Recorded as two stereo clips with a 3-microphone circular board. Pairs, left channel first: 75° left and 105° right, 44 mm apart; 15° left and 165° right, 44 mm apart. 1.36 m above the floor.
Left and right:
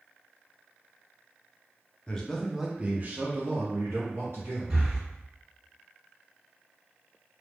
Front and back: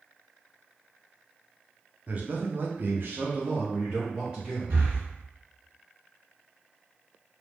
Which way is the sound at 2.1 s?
145° left.